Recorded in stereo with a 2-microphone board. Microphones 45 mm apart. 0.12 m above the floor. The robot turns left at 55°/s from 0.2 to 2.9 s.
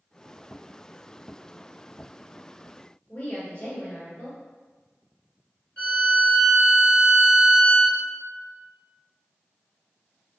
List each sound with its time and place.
3.1 s a woman speaking: 35° left (ahead or behind), 1.3 m
5.8 s a violin: 30° left (ahead or behind), 1.5 m